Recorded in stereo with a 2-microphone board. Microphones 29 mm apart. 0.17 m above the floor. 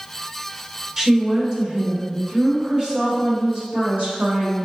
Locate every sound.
1.0 s a woman speaking: 20° right (ahead or behind), 2 m; by 4.6 s 60° right (ahead or behind), 5 m